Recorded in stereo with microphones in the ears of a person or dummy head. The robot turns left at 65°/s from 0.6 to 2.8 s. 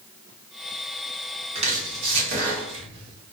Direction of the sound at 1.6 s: 35° right (ahead or behind).